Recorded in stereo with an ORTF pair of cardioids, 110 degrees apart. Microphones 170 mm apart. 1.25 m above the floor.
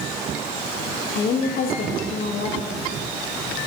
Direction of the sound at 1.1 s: 60° left.